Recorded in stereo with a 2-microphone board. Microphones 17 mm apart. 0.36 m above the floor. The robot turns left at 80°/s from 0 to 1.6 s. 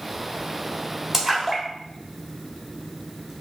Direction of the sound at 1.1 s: 25° right (ahead or behind).